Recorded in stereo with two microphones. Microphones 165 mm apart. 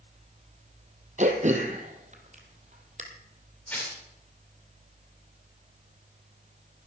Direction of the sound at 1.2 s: 50° right (ahead or behind).